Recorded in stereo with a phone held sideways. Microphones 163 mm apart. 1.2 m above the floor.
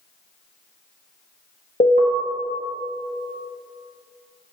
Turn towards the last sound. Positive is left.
turn(degrees=50)  # may be behind; listen again after turning